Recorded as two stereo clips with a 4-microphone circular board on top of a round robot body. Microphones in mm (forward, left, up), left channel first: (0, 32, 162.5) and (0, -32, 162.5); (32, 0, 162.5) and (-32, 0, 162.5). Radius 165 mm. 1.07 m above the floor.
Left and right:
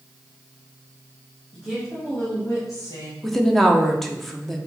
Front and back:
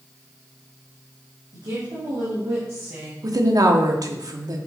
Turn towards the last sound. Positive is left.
turn(degrees=175)